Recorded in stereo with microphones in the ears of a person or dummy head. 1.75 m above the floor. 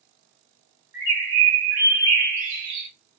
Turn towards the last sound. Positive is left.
turn(degrees=-10)  # may be behind; listen again after turning